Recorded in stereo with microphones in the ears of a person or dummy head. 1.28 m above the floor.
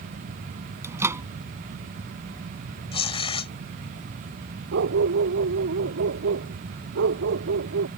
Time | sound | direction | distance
0.8 | a microwave | 15° right (ahead or behind) | ?
2.9 | tearing paper | 30° left (ahead or behind) | ?
4.7 | a dog barking | 65° right (ahead or behind) | ?